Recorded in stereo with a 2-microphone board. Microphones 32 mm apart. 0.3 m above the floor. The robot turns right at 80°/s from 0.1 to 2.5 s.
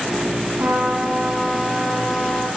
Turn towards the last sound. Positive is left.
turn(degrees=65)